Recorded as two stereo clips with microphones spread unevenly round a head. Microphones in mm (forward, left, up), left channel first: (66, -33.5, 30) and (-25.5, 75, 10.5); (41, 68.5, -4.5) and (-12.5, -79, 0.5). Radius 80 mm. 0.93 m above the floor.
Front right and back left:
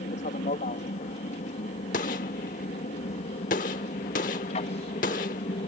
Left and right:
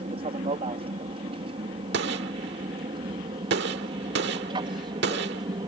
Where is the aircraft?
70° right; by 5.7 s 65° right.